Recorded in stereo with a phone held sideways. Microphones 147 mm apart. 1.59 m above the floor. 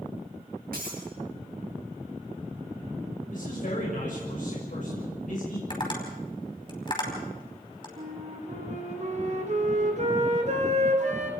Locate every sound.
0.7 s breaking glass: 75° right (ahead or behind), 6 m
3.3 s a man speaking: 65° left (ahead or behind), 6.5 m
5.7 s tapping: 35° left (ahead or behind), 5 m
8.0 s a flute: 50° right (ahead or behind), 2 m